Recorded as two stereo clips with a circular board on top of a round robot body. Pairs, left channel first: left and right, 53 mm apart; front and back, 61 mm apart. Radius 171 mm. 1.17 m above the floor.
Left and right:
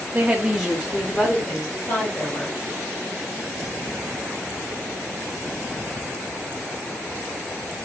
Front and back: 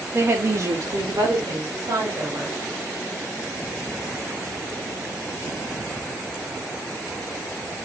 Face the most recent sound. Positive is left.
turn(degrees=145)